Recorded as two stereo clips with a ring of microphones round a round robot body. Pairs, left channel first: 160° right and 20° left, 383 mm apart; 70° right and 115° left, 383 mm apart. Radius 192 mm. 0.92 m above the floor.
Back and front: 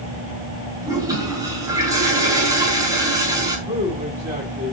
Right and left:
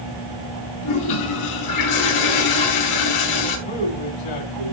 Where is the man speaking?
60° right, 6 m.